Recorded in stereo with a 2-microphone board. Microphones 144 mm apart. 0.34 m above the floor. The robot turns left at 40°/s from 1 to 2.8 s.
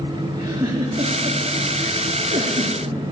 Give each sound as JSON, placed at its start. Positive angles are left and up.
{"t": 0.3, "sound": "a giggle", "side_deg": -30, "distance_m": 3.0}